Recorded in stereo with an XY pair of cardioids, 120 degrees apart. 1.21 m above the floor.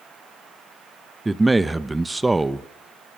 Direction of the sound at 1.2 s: 15° right.